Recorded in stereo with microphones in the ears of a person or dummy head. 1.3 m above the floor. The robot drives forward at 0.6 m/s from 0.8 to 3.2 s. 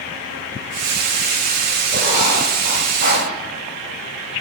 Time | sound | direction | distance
1.9 | writing | 40° right (ahead or behind) | 5 m